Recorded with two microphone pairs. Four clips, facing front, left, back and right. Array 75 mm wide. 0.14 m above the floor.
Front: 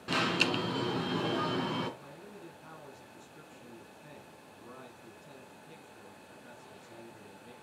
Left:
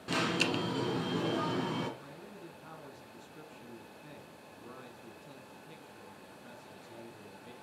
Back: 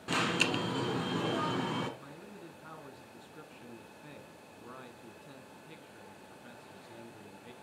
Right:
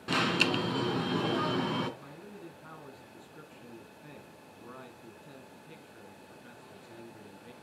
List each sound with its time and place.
0.1 s an alarm: 80° right, 1.1 m
2.0 s a man speaking: 140° right, 1.2 m